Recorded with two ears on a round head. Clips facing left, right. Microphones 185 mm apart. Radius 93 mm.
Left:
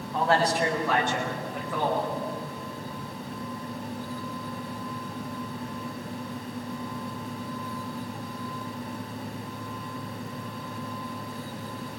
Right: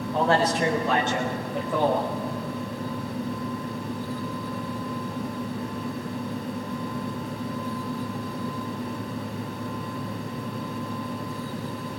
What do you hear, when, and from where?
0.1 s a man speaking: 20° right (ahead or behind), 3.5 m